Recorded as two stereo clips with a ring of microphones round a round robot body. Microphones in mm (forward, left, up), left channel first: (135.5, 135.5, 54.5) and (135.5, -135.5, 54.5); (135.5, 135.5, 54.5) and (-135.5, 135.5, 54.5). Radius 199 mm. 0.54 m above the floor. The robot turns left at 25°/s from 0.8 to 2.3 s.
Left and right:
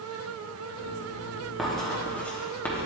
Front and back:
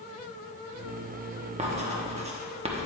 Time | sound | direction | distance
1.6 | writing | straight behind | 1.1 m